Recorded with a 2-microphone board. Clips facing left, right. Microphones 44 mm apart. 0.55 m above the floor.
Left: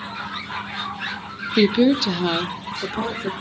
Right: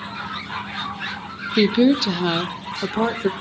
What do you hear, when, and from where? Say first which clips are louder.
1.6 s a woman speaking: even; 15° left (ahead or behind), 0.7 m; by 3.3 s 45° right (ahead or behind), 1.3 m